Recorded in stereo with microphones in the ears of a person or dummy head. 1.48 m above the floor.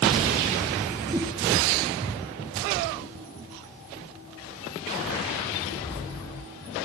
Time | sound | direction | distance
1.1 | a whoosh | 25° right (ahead or behind) | 2.5 m